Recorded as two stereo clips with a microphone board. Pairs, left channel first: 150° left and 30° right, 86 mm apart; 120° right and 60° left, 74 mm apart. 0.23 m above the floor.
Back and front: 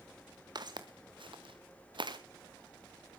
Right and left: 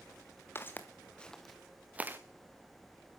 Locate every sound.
0.6 s footsteps: 60° right, 1.9 m; by 2.2 s straight ahead, 1.4 m